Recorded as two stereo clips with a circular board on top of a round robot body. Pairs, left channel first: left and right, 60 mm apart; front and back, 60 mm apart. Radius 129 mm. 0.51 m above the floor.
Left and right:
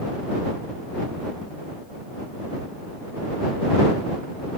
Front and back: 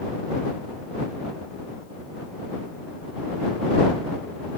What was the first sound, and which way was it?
Only background noise.